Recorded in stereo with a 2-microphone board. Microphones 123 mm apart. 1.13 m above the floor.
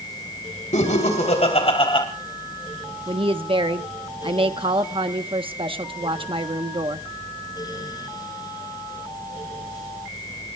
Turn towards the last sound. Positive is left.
turn(degrees=-45)  # may be behind; listen again after turning